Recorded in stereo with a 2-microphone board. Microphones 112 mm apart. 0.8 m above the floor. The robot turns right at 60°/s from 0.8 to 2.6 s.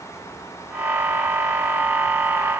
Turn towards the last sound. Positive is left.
No sound to turn to.